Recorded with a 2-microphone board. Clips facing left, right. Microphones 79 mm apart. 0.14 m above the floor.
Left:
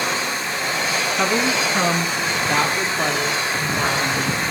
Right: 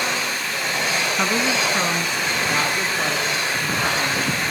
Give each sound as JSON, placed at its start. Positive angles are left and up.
{"t": 1.2, "sound": "a woman speaking", "side_deg": 0, "distance_m": 1.0}